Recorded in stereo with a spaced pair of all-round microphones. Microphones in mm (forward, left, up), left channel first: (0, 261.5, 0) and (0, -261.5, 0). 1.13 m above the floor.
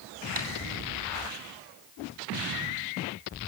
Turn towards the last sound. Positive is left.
turn(degrees=-65)  # may be behind; listen again after turning